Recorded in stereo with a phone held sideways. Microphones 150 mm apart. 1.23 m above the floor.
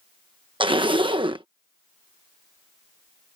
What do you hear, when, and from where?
0.6 s a zipper: 35° right (ahead or behind)